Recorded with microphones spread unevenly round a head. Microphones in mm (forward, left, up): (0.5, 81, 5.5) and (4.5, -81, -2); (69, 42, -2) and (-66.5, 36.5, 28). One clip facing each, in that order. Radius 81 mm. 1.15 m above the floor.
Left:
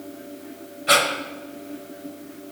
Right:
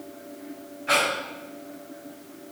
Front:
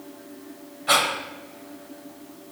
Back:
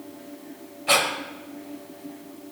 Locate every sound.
0.9 s breathing: 100° left, 0.9 m